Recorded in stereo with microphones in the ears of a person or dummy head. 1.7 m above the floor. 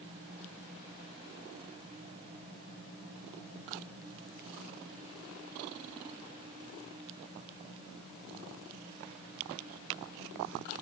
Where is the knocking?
No knocking in this recording.